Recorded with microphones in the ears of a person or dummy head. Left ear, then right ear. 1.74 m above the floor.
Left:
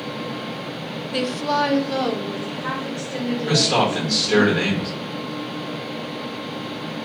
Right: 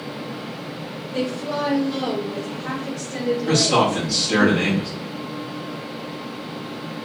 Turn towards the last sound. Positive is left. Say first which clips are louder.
# even
turn(degrees=25)  # may be behind; listen again after turning